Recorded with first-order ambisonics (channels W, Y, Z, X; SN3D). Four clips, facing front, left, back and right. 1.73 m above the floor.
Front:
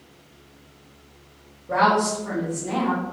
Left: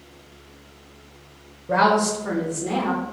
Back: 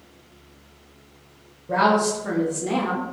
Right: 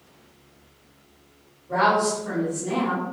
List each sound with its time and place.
1.7 s a woman speaking: 90° left, 0.5 m; by 3.0 s 170° left, 0.9 m